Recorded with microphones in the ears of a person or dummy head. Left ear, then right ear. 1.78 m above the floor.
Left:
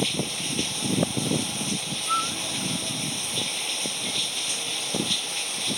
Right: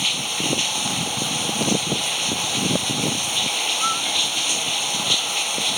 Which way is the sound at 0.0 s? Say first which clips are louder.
Right 5 dB; 40° right (ahead or behind).